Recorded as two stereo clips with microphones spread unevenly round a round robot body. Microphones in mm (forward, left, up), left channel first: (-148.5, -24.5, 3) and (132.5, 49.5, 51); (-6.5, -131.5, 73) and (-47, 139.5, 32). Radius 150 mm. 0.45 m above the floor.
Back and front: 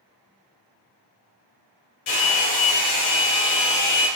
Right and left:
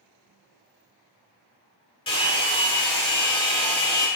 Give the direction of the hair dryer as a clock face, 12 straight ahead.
5 o'clock.